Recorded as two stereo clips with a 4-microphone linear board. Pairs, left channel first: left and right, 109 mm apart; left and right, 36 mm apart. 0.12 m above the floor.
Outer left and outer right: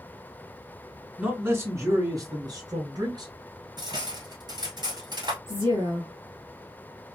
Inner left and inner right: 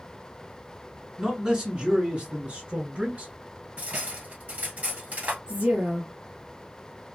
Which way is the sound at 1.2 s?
15° right (ahead or behind).